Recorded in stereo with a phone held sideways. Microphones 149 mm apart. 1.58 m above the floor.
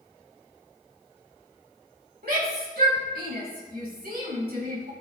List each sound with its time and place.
2.2 s a shout: 85° right, 2.5 m